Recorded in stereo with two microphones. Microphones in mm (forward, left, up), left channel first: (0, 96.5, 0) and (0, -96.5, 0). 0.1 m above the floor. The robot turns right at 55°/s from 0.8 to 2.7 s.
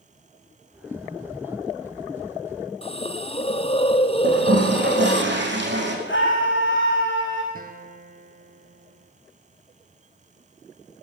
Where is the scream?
80° left, 8 m.